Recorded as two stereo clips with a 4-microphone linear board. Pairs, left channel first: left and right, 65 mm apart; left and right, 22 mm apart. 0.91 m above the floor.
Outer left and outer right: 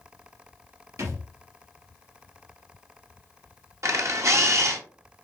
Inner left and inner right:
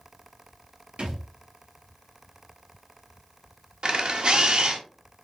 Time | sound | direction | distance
1.0 | a thud | 65° right (ahead or behind) | 3 m
3.8 | a camera shutter | 50° right (ahead or behind) | 0.9 m